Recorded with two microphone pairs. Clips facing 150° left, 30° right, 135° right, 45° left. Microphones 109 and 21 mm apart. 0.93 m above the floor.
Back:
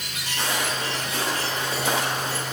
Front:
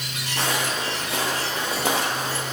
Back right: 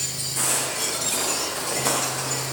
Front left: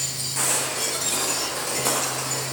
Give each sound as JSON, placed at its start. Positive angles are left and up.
{"t": 0.4, "sound": "footsteps", "azimuth_deg": -35, "distance_m": 3.0}